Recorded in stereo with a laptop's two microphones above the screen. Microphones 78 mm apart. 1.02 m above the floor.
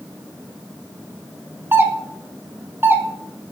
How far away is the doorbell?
About 1.1 m.